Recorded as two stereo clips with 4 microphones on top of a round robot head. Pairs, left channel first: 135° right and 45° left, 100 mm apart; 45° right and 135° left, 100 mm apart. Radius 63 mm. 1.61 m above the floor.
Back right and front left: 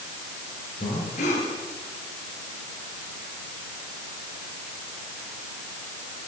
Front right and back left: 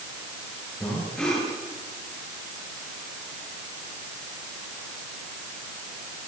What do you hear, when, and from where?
0.8 s breathing: 125° right, 8.5 m